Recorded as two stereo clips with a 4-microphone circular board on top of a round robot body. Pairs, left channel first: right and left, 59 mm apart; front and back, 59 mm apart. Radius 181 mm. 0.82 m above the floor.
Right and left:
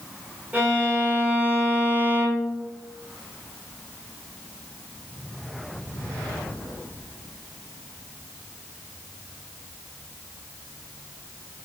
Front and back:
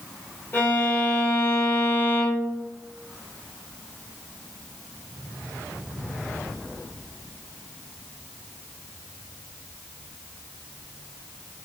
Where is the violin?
40° left, 1.5 m.